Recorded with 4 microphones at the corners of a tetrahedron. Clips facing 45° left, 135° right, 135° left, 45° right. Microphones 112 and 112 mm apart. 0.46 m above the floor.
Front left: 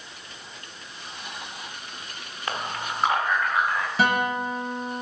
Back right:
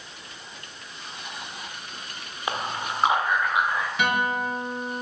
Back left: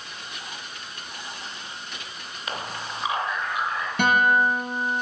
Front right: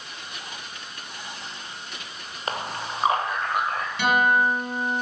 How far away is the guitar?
About 2.5 m.